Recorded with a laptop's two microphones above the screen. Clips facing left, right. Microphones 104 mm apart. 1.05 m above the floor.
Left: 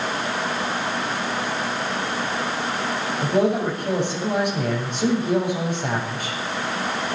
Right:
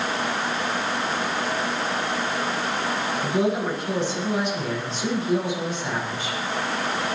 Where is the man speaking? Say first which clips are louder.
Left 4 dB; 55° left (ahead or behind), 8 m.